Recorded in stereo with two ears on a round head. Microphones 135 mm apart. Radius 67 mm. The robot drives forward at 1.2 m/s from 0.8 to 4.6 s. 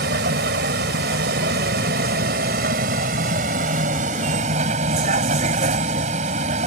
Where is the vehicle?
80° right; by 6.7 s 50° right (ahead or behind).